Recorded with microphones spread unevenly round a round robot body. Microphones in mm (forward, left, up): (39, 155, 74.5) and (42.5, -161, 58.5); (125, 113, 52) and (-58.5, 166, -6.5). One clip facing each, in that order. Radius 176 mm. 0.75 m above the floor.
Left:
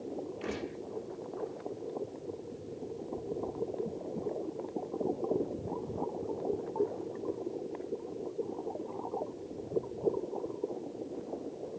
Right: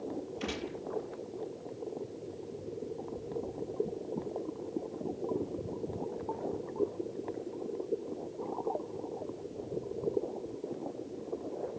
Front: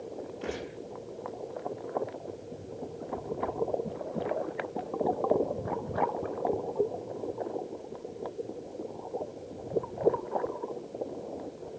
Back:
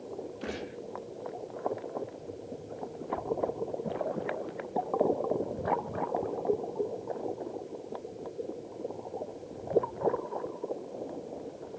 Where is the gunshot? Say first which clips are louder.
Even, front 4 dB; 120° right, 7.5 m.